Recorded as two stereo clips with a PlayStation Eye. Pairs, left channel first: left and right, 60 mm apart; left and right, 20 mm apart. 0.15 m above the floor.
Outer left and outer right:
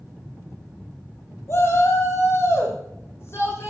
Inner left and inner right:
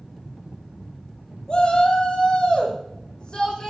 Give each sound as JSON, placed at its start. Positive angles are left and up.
{"t": 1.5, "sound": "a shout", "side_deg": 40, "distance_m": 5.0}